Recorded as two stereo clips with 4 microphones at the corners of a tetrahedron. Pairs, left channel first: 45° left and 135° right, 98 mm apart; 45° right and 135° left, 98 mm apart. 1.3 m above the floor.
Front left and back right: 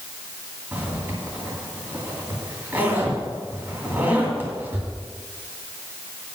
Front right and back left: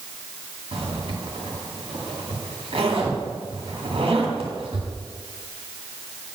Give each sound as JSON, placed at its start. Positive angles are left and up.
{"t": 0.7, "sound": "a zipper", "azimuth_deg": 160, "distance_m": 2.5}